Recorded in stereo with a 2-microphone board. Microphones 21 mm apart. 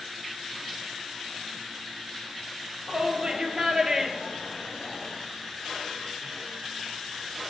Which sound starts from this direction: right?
A shout, at 2.9 s.